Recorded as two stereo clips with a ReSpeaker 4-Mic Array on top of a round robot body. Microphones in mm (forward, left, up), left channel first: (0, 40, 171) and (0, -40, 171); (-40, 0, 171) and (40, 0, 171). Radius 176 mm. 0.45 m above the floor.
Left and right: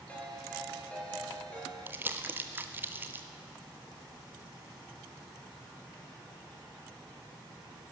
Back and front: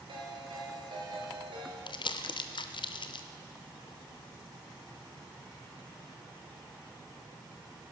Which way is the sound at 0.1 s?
15° left.